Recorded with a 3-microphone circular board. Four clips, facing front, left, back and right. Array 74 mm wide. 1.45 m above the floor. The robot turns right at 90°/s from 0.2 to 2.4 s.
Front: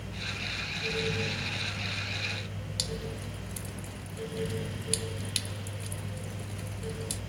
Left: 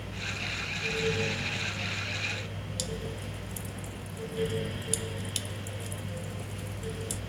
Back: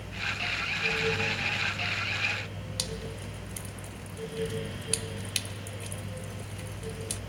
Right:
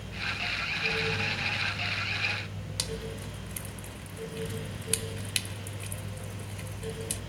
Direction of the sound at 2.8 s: 105° right.